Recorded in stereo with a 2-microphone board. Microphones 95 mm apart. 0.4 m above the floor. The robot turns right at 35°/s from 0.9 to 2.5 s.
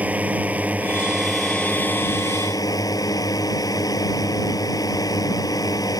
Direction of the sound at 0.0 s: 15° right.